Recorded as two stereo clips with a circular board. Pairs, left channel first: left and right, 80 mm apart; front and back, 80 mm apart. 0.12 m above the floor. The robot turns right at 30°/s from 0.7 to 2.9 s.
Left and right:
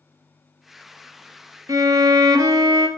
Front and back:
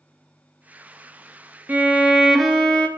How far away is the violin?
About 0.5 m.